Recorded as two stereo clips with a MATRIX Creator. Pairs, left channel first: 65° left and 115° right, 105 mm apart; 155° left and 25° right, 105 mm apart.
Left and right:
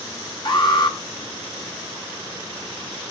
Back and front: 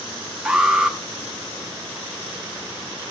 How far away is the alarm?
About 0.9 m.